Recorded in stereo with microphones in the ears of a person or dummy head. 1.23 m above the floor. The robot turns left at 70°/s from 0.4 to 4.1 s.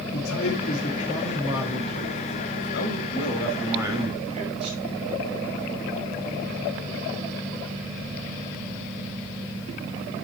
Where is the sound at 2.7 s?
65° left, 5 m; by 4.8 s 30° right, 5 m.